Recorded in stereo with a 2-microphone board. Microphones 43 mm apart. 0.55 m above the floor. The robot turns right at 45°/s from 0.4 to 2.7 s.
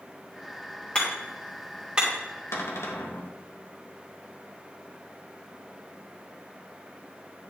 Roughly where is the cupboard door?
Left.